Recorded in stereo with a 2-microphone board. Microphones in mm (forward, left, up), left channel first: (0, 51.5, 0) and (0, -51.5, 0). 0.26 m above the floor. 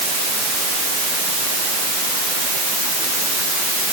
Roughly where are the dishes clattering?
I don't hear dishes clattering.